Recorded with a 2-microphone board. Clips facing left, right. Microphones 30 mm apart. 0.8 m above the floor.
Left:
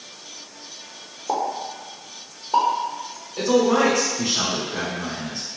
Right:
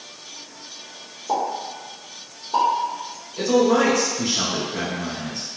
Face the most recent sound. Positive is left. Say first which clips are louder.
# even
turn(degrees=45)  # may be behind; listen again after turning